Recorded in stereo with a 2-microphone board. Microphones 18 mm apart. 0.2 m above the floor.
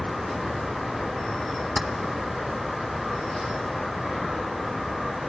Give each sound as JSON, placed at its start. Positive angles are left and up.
{"t": 1.8, "sound": "keys jangling", "side_deg": -5, "distance_m": 1.2}